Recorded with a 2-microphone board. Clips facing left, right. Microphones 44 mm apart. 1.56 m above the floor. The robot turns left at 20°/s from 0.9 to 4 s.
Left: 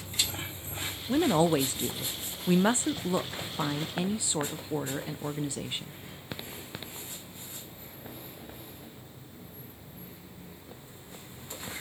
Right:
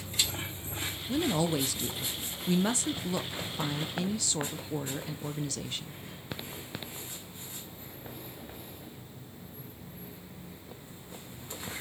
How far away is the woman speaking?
About 0.5 m.